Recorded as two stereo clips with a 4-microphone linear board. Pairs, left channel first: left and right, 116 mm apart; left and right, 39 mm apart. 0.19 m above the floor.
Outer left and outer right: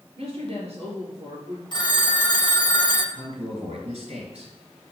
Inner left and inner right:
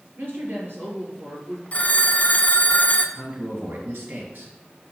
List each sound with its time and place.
0.2 s a woman speaking: 60° right (ahead or behind), 4 m
1.7 s a phone ringing: 40° left (ahead or behind), 0.7 m
3.1 s a man speaking: 60° right (ahead or behind), 3 m